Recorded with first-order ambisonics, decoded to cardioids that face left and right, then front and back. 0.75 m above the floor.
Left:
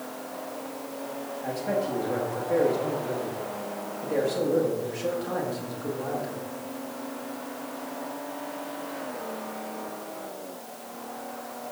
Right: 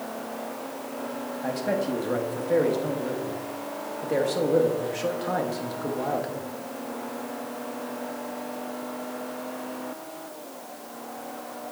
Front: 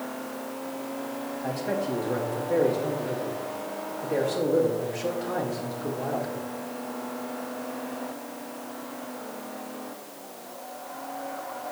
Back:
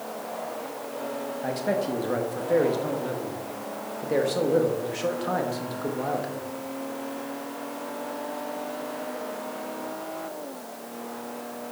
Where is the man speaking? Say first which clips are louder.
Right 1 dB, back 2 dB; 145° right, 1.1 m.